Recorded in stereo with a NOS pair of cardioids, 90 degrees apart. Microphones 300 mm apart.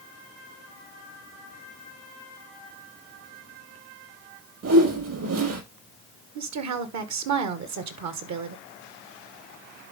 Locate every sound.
4.6 s a whoosh: 55° right, 4.5 m
6.3 s a woman speaking: 65° right, 1.7 m